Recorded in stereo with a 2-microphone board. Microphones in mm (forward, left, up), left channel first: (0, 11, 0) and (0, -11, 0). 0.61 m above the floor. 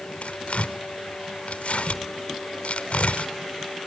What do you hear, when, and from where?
0.2 s tearing paper: 70° left (ahead or behind), 1.0 m